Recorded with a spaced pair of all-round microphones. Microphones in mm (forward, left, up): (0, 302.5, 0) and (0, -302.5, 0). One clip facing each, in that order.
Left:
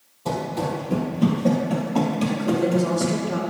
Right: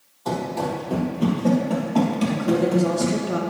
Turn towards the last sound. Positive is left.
turn(degrees=-5)  # may be behind; listen again after turning